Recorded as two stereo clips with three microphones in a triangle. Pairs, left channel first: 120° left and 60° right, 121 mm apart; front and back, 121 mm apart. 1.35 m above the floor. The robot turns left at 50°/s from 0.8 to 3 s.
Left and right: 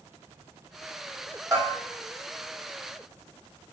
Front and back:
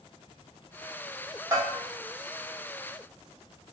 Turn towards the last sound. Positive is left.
turn(degrees=165)